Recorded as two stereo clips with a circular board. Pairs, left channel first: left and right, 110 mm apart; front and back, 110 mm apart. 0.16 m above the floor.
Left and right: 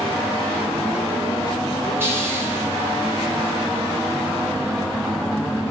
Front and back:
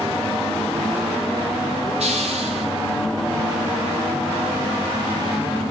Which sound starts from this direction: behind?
A hiss, at 2.0 s.